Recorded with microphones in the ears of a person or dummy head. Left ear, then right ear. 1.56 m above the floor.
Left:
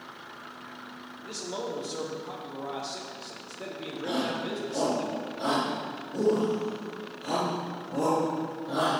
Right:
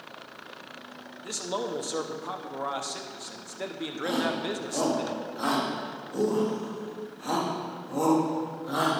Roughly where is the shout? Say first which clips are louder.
Right 2 dB; right.